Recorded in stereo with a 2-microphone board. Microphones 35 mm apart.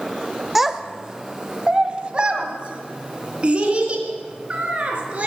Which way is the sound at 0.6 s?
5° right (ahead or behind).